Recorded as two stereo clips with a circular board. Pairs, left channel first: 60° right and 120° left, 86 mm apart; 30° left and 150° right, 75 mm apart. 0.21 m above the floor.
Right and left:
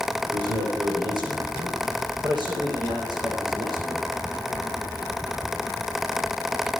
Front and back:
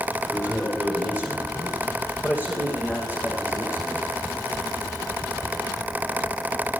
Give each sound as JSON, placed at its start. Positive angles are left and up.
{"t": 0.3, "sound": "a man speaking", "azimuth_deg": 140, "distance_m": 9.0}